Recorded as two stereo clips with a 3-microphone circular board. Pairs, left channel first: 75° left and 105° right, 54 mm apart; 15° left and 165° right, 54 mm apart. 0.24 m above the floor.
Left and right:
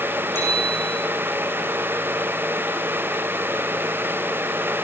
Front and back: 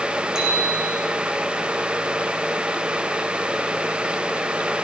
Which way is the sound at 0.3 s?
120° left.